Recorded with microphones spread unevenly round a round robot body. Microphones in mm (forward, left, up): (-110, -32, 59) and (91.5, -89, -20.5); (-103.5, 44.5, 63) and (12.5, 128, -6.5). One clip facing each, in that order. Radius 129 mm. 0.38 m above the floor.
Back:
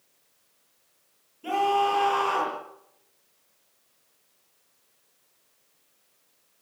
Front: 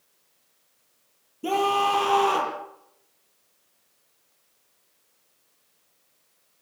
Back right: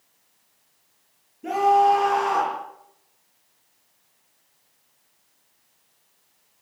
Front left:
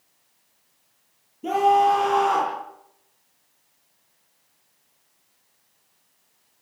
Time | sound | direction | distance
1.4 | a scream | 35° right | 9.5 m